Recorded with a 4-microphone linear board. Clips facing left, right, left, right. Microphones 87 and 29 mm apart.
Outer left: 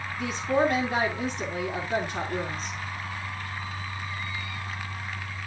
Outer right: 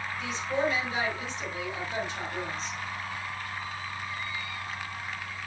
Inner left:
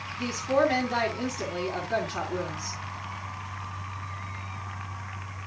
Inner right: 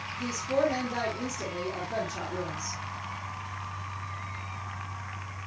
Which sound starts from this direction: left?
A woman speaking, at 0.2 s.